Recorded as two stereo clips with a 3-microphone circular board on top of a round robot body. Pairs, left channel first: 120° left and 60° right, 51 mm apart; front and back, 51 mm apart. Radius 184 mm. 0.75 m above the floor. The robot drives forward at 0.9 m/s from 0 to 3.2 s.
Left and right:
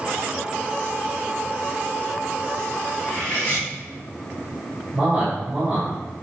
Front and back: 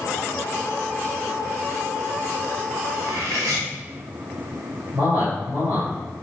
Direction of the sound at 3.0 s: 170° right.